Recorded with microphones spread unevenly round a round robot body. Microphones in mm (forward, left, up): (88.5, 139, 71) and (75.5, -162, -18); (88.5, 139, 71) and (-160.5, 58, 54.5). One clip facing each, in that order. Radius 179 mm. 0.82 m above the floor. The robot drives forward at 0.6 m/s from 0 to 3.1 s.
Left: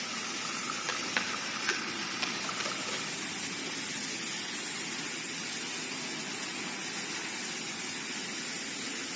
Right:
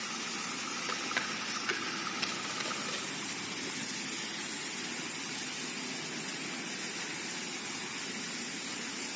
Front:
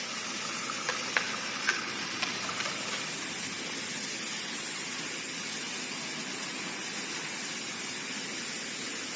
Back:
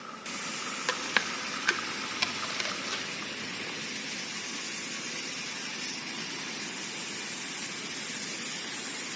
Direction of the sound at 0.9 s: 165° left.